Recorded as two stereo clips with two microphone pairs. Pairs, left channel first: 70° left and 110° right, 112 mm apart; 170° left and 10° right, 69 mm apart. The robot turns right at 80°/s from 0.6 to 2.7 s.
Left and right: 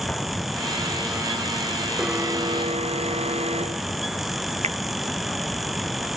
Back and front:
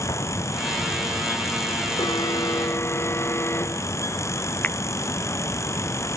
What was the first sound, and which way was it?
An explosion, 150° left.